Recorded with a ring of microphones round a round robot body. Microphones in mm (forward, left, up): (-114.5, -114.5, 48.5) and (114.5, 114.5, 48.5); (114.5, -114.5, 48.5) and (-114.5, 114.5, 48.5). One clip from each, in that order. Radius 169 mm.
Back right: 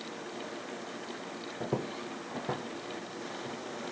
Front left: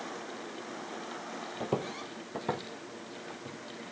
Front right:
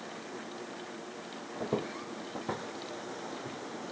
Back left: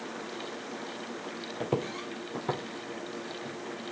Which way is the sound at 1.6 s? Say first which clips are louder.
Front left 1 dB, back left 2 dB; 100° left.